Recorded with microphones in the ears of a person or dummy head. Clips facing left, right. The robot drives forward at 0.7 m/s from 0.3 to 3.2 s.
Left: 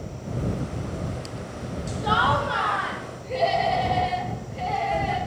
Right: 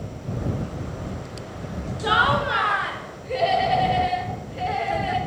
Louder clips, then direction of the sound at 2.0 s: Right 1 dB; 30° right (ahead or behind).